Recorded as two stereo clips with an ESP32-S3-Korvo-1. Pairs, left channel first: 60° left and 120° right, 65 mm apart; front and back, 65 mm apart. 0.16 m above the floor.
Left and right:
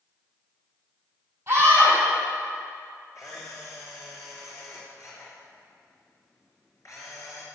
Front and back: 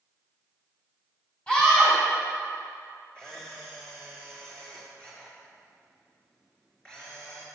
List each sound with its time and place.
1.5 s a scream: 65° right, 4 m
3.1 s a camera shutter: 70° left, 3 m